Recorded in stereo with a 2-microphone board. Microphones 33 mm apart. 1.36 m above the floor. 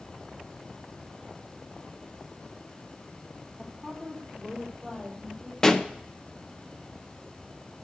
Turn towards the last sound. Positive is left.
turn(degrees=15)  # may be behind; listen again after turning